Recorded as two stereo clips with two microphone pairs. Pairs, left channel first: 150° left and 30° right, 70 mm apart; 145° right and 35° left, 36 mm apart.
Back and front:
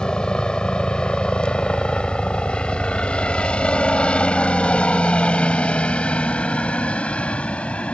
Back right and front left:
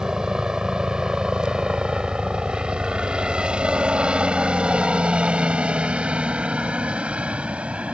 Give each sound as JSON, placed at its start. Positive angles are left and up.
{"t": 0.0, "sound": "a helicopter", "azimuth_deg": 85}